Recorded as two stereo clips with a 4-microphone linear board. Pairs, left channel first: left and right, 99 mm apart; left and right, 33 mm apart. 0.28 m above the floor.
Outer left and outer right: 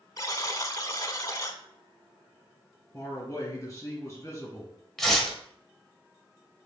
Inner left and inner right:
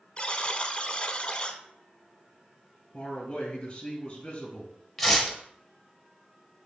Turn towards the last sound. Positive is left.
turn(degrees=5)  # may be behind; listen again after turning